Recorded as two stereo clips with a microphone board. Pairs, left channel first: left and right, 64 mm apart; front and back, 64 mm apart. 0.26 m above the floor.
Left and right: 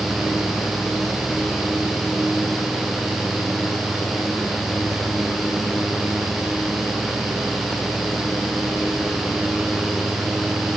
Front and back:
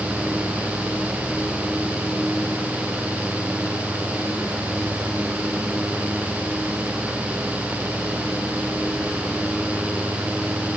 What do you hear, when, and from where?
Only background noise.